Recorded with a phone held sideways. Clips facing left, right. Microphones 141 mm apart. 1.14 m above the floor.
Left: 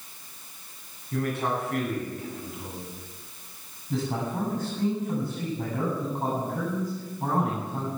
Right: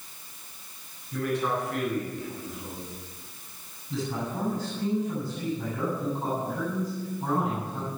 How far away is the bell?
No bell in this recording.